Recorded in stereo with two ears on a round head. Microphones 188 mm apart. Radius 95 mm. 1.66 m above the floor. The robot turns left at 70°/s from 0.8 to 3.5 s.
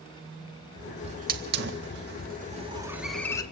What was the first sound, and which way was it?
A hiss, 30° right (ahead or behind).